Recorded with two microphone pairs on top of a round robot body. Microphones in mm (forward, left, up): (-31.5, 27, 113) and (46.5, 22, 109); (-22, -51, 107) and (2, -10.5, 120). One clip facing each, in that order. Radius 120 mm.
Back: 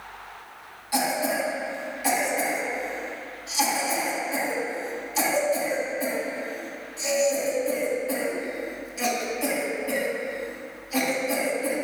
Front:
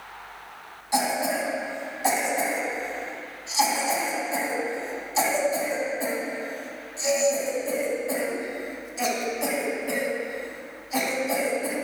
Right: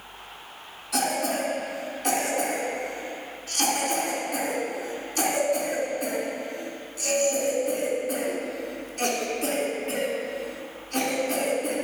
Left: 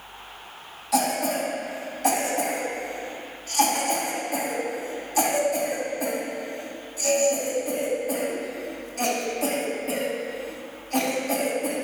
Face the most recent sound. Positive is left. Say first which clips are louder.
# even, left 2 dB
turn(degrees=60)